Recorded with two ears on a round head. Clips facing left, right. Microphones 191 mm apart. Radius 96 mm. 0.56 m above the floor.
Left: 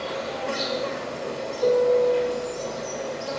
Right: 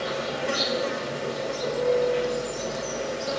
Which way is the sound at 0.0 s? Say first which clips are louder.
Right 1 dB; 20° right (ahead or behind).